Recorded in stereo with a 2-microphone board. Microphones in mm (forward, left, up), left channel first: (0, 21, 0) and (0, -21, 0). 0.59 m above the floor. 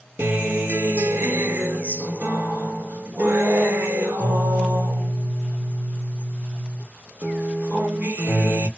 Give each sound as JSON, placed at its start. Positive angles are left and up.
{"t": 0.2, "sound": "a guitar", "side_deg": -55, "distance_m": 2.0}